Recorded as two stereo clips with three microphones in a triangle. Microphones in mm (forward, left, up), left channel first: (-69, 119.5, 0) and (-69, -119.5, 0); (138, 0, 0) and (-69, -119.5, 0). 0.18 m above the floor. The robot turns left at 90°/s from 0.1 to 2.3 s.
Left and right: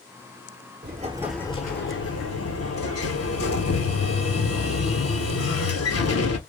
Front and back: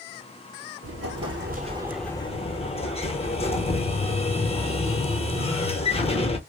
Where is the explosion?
135° right, 0.7 m; by 6.4 s 90° left, 0.7 m.